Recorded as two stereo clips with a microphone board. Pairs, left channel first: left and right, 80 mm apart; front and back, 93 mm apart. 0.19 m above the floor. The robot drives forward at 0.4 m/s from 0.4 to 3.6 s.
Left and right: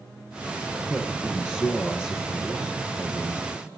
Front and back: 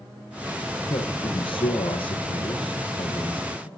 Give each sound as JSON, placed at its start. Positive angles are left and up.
{"t": 0.9, "sound": "a man speaking", "azimuth_deg": 20, "distance_m": 3.5}